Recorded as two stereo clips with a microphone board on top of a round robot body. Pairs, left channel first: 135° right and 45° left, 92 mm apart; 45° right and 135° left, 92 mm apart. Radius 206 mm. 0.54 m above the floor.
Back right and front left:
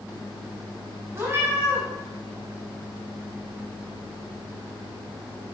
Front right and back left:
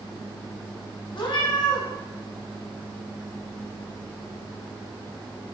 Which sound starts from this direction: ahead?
A cat meowing, at 1.1 s.